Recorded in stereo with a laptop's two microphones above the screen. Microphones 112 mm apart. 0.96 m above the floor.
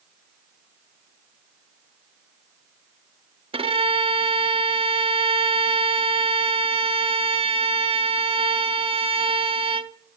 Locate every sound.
3.5 s a violin: 55° right (ahead or behind), 0.6 m